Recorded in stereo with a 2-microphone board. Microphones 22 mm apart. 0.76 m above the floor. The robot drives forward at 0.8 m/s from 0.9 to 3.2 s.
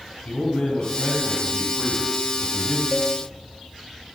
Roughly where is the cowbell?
Centre.